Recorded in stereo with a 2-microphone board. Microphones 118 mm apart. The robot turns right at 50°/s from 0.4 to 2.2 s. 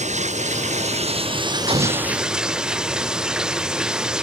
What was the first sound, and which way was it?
Running water, 95° right.